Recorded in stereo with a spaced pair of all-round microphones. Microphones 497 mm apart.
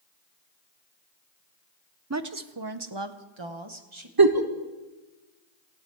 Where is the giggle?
45° right (ahead or behind), 1.0 m.